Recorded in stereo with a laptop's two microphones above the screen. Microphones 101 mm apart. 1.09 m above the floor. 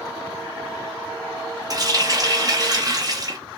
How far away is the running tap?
About 0.8 m.